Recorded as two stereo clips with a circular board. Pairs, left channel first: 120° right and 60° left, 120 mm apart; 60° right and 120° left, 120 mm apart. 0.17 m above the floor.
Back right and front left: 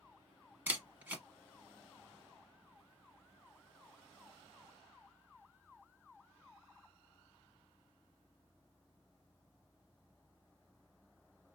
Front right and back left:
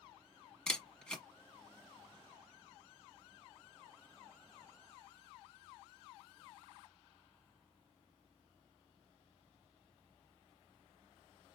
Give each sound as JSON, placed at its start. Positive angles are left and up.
{"t": 0.7, "sound": "a camera shutter", "azimuth_deg": 10, "distance_m": 1.0}